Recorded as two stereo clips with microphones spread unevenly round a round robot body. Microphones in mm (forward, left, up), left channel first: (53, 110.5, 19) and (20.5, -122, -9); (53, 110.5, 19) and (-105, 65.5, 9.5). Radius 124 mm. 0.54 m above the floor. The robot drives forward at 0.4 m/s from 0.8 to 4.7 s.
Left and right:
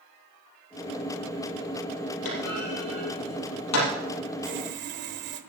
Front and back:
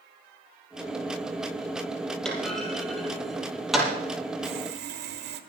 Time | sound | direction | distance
2.2 | a clunk | 105° left | 5.5 m
4.4 | sawing | 140° right | 1.0 m